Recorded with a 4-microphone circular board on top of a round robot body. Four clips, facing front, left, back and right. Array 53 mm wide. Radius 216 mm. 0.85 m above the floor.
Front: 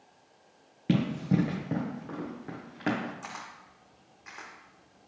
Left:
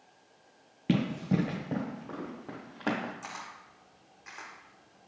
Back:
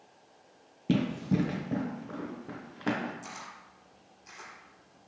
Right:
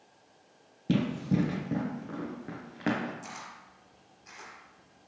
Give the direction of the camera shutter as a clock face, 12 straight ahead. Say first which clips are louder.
Left 1 dB, front 2 dB; 11 o'clock.